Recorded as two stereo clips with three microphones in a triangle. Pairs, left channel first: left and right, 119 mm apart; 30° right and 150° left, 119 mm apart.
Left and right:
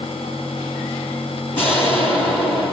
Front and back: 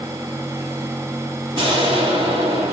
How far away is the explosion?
About 2 m.